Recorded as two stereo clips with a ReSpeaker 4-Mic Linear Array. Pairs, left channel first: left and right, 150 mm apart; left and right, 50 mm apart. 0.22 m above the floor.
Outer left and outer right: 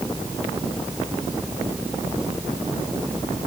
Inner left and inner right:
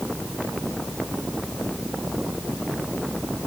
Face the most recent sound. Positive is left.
No sound to turn to.